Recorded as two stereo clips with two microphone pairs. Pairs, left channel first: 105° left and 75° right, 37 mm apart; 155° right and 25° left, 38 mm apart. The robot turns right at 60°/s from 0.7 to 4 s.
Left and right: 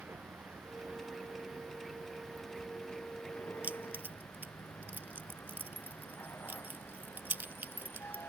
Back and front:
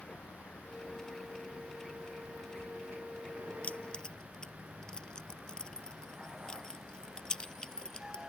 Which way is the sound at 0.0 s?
100° right.